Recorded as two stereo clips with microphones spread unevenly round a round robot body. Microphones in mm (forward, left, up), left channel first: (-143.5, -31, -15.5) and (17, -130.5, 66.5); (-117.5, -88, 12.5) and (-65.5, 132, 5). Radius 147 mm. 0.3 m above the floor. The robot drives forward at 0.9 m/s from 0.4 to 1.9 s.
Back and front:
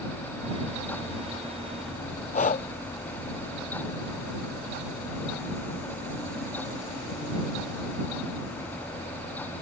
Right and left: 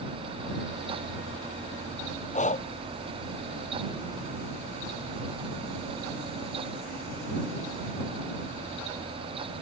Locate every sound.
2.3 s breathing: 160° right